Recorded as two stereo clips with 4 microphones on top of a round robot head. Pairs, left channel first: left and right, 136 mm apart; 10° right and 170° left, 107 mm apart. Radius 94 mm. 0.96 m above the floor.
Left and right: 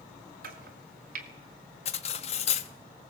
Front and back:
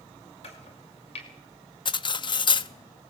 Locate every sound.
0.4 s chopping: 60° right, 2.5 m
1.9 s cutlery clinking: 35° left, 0.7 m